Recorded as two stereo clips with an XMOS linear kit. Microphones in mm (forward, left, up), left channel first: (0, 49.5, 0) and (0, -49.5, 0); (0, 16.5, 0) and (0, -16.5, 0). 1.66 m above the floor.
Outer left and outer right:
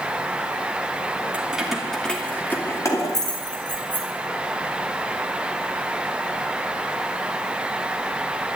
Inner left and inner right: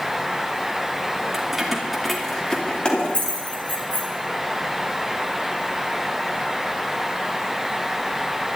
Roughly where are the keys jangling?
Centre.